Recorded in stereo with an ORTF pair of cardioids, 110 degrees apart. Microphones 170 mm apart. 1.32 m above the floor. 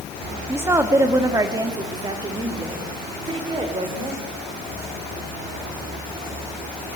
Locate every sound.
0.5 s a woman speaking: 15° right, 2.5 m; by 4.2 s 30° right, 6 m